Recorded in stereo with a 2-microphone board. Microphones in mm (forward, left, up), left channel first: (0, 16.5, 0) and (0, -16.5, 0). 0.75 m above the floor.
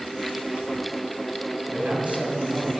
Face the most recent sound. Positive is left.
turn(degrees=-40)  # may be behind; listen again after turning